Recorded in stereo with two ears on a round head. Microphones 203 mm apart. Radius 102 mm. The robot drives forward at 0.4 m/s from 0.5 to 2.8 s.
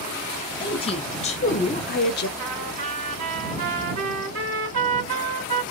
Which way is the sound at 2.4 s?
60° right (ahead or behind).